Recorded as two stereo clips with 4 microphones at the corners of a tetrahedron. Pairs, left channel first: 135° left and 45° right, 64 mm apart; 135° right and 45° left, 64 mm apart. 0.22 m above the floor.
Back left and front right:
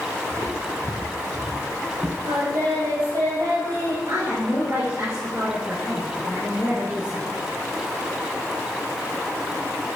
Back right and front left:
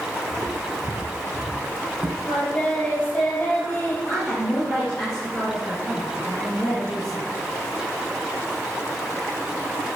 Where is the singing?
60° right, 3.5 m.